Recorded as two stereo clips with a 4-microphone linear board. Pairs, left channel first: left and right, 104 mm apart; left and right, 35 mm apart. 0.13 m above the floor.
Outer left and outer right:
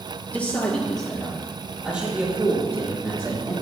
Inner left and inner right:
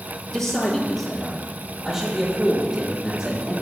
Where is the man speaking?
10° left (ahead or behind), 3 m; by 3.5 s 25° right (ahead or behind), 5 m.